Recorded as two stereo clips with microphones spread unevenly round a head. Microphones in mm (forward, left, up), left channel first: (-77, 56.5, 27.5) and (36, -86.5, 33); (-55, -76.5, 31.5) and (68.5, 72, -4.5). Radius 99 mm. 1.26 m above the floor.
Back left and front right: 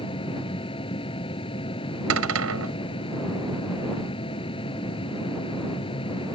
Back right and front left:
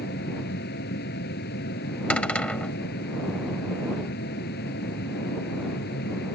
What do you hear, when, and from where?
0.0 s a machine running: 170° right
2.1 s a cupboard door: 45° right